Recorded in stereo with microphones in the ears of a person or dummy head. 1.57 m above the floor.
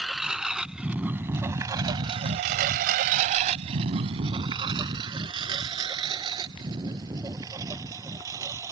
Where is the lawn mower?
5° right (ahead or behind); by 8.7 s 20° right (ahead or behind).